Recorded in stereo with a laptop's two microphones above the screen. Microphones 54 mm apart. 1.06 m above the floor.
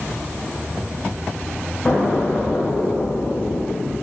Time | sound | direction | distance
1.9 | an explosion | 20° left (ahead or behind) | 0.9 m